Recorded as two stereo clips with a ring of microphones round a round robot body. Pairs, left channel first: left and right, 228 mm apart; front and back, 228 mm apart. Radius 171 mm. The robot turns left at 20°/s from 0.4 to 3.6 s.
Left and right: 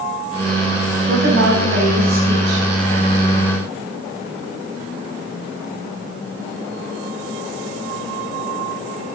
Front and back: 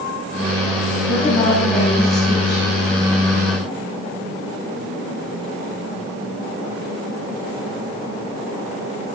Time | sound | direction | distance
1.1 | a woman speaking | 65° right | 5.5 m